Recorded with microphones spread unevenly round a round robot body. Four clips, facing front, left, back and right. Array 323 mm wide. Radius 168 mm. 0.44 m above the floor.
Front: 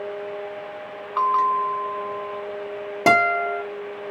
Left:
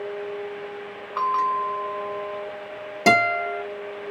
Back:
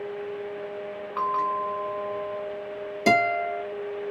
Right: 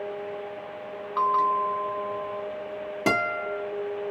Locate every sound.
1.2 s a bell: 10° right, 1.2 m
3.1 s a guitar: 5° left, 2.5 m